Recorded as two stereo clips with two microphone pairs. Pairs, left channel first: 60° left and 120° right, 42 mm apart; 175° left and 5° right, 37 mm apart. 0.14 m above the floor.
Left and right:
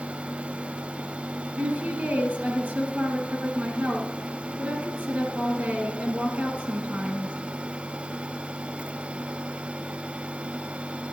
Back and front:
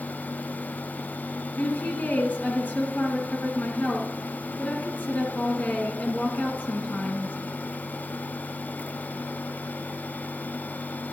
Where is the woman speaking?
150° right, 2 m.